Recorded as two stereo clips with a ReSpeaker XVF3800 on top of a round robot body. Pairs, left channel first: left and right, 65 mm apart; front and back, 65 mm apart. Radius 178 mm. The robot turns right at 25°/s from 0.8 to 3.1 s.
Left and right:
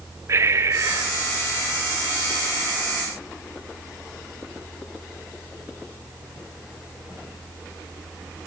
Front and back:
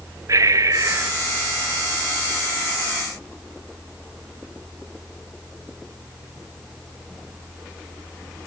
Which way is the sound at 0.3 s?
140° right.